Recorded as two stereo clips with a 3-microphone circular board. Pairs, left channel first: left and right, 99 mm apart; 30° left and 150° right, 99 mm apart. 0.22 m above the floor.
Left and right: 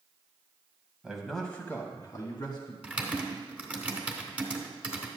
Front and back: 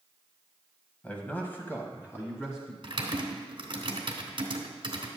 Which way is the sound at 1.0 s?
20° right.